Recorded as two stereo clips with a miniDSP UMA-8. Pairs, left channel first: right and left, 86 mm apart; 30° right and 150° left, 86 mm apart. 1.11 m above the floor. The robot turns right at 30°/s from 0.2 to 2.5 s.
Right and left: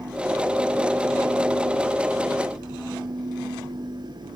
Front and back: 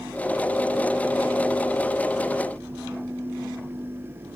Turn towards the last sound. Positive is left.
No sound to turn to.